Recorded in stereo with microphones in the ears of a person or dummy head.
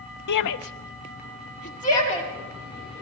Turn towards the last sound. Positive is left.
turn(degrees=30)  # may be behind; listen again after turning